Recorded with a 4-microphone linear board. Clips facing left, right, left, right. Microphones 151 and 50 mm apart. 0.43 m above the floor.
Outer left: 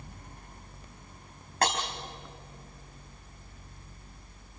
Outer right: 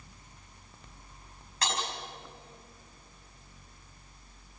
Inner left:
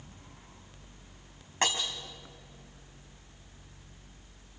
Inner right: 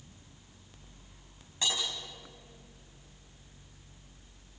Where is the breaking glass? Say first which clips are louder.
Outer left 5 dB, inner left 4 dB; 55° left (ahead or behind), 4.5 m.